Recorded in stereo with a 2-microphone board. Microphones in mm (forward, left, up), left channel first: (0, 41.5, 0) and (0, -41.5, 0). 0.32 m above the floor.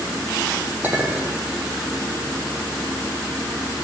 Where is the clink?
25° right (ahead or behind), 7.5 m.